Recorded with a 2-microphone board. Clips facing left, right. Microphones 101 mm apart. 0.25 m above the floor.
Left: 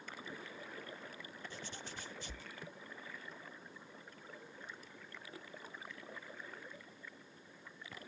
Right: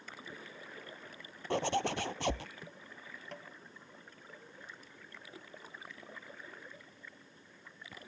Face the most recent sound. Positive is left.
turn(degrees=-75)  # may be behind; listen again after turning